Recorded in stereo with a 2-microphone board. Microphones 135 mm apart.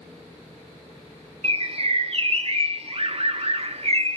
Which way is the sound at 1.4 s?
45° right (ahead or behind).